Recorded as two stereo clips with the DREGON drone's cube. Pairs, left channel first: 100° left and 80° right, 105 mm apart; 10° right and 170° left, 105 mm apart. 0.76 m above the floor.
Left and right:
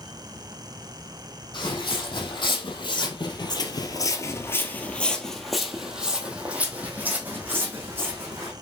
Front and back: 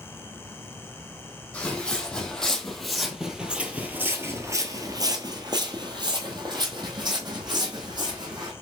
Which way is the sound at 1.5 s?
65° left.